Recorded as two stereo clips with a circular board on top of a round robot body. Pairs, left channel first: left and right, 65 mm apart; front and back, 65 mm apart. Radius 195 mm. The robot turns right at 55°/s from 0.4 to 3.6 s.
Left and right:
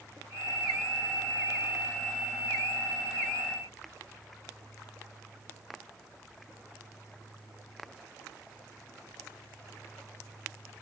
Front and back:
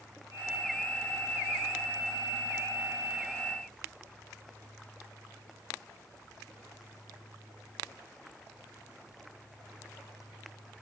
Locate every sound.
Only background noise.